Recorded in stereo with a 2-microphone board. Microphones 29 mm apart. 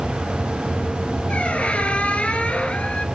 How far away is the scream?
No scream in this recording.